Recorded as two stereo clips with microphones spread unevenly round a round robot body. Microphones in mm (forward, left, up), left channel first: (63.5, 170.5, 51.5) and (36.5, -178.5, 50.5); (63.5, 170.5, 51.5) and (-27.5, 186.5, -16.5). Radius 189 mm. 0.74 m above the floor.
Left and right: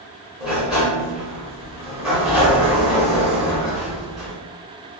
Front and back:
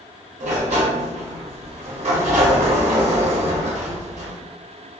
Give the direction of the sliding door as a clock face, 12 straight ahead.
6 o'clock.